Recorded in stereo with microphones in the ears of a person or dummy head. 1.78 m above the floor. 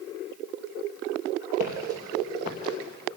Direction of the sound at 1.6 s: 45° left (ahead or behind).